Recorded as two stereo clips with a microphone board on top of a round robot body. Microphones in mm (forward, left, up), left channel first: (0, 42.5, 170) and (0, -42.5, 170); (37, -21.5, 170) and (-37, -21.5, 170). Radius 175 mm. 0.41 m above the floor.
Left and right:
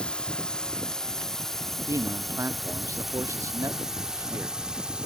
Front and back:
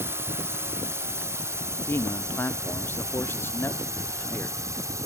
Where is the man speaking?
45° right.